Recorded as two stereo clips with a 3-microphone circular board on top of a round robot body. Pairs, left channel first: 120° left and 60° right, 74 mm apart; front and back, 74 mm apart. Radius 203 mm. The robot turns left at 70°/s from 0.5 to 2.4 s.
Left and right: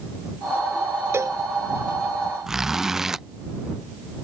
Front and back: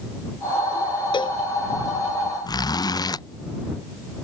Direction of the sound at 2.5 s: 25° left.